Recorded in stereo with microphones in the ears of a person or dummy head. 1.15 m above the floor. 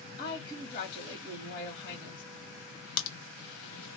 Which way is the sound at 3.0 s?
70° left (ahead or behind).